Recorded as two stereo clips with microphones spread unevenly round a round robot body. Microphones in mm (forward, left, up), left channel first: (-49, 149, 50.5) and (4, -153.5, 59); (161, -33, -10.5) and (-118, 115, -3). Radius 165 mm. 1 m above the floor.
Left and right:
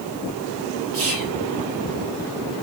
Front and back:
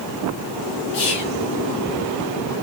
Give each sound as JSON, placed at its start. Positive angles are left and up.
{"t": 0.9, "sound": "whispering", "azimuth_deg": -35, "distance_m": 1.6}